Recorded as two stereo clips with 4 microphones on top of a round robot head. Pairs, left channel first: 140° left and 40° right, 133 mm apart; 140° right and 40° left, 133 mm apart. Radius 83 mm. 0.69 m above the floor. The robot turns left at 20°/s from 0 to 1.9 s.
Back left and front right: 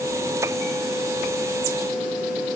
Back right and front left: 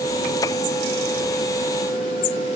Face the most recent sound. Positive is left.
No sound to turn to.